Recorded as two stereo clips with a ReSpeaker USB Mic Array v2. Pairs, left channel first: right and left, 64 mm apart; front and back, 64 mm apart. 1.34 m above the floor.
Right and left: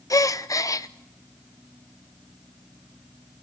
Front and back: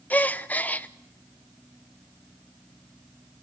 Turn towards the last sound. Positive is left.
turn(degrees=-65)